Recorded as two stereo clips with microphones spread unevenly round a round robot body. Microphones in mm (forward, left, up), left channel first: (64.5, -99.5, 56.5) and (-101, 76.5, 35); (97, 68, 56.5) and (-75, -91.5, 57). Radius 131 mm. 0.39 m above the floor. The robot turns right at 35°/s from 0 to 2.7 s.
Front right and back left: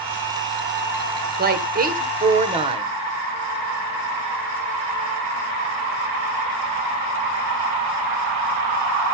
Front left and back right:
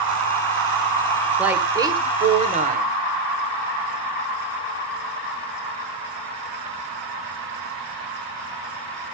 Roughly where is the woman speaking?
Behind left.